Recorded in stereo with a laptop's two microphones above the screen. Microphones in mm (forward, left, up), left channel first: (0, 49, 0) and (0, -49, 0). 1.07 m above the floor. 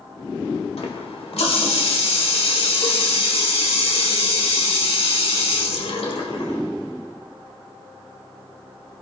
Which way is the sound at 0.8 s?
75° left (ahead or behind).